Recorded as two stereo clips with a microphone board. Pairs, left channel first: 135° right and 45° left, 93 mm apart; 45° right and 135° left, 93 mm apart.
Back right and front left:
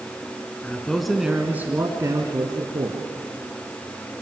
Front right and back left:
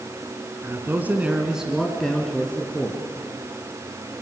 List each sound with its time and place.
0.6 s a man speaking: 160° left, 1.9 m; by 3.0 s 25° left, 2.5 m